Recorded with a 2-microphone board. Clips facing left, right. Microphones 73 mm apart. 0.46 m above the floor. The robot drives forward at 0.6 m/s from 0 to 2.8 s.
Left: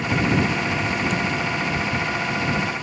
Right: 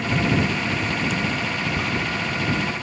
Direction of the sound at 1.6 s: 70° right (ahead or behind).